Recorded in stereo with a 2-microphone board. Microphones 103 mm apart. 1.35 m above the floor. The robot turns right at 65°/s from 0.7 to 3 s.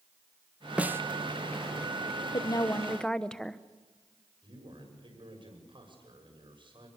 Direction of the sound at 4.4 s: 50° right (ahead or behind).